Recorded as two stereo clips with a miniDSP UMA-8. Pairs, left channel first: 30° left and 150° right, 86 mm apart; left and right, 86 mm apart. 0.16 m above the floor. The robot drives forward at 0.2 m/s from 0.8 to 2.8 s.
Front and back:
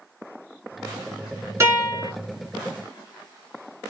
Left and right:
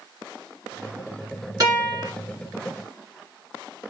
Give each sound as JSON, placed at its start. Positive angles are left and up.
{"t": 1.6, "sound": "a guitar", "azimuth_deg": -110, "distance_m": 2.5}